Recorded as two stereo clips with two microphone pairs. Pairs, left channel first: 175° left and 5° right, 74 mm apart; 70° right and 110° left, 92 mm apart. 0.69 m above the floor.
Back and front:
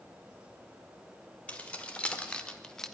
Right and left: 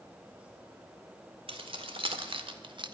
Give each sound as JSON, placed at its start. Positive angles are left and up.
{"t": 1.5, "sound": "keys jangling", "azimuth_deg": 105, "distance_m": 2.0}